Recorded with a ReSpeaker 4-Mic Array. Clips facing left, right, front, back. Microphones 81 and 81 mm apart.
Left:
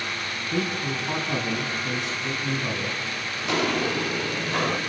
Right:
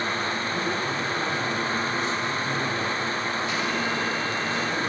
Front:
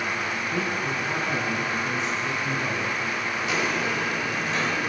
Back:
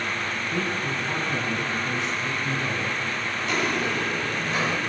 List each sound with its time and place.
0.5 s a man speaking: 85° left, 5.5 m
3.5 s footsteps: 85° left, 1.2 m; by 4.8 s 95° left, 1.8 m